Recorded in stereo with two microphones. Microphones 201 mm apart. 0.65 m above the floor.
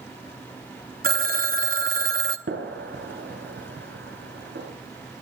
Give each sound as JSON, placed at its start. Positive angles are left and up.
{"t": 1.0, "sound": "a phone ringing", "side_deg": -50, "distance_m": 0.7}
{"t": 2.5, "sound": "a gunshot", "side_deg": -80, "distance_m": 3.0}